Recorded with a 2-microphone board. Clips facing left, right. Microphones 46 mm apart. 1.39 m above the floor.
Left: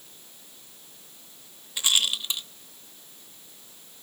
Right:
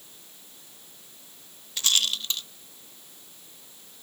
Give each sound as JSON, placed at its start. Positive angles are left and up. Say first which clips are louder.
{"t": 1.8, "sound": "a rattle", "louder": "left 1 dB", "side_deg": 15, "distance_m": 0.8}